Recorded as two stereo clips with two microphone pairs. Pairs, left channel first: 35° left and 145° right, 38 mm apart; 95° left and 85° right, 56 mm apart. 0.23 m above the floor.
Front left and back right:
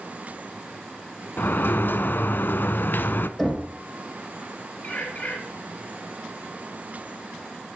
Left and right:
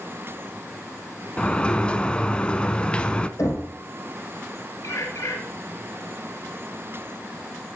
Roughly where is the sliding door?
Ahead left.